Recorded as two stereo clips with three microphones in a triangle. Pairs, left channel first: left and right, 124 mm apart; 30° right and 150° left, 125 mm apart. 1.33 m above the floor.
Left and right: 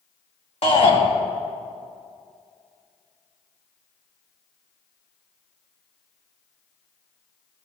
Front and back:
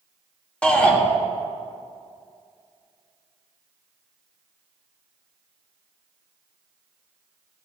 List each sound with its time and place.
0.6 s a shout: 50° left, 2 m